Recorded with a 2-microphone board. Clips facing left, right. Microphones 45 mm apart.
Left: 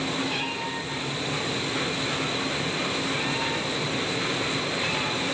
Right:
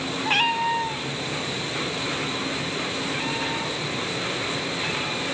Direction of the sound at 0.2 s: 60° right (ahead or behind).